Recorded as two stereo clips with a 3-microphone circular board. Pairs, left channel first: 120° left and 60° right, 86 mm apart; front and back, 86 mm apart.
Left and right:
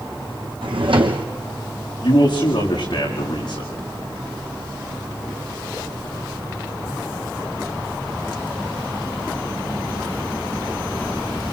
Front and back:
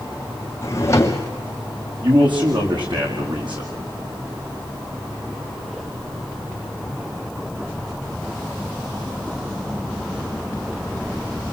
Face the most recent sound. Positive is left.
turn(degrees=155)